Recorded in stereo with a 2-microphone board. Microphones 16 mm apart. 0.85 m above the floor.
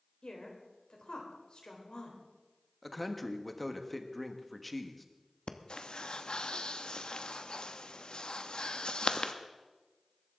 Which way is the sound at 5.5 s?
65° left (ahead or behind).